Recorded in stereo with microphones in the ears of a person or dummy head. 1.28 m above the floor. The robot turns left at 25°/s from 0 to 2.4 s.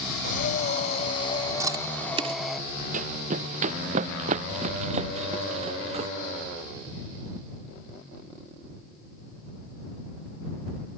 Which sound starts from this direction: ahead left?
Breathing, at 0.2 s.